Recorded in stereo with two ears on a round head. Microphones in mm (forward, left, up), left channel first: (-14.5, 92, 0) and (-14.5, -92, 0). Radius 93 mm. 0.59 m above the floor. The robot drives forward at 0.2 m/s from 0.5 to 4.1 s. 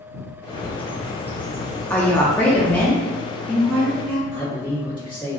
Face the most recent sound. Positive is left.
turn(degrees=25)  # may be behind; listen again after turning